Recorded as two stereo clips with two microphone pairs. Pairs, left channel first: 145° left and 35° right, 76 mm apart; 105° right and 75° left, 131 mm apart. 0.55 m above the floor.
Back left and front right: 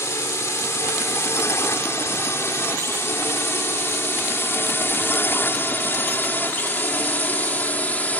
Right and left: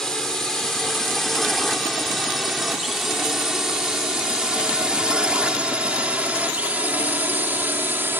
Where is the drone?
170° left; by 8.2 s 120° left.